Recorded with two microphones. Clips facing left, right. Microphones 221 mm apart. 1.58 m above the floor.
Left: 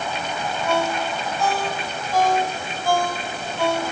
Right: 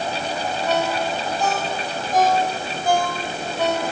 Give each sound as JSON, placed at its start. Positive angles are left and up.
{"t": 0.7, "sound": "a ringtone", "side_deg": -20, "distance_m": 5.5}